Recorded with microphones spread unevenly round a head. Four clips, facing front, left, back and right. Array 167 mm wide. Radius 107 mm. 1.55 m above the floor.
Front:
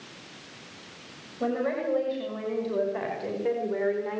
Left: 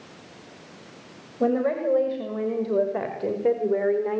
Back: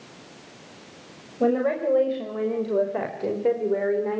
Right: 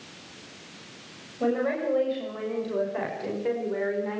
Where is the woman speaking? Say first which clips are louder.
Left 3 dB, back 6 dB; 140° left, 6.5 m; by 4.2 s 130° left, 4 m.